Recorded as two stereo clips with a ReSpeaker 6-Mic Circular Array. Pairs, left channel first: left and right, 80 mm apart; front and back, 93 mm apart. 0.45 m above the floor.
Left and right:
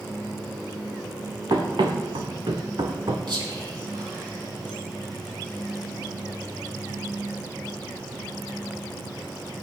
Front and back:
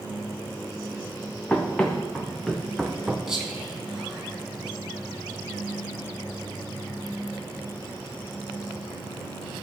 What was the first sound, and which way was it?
Running footsteps, 75° right.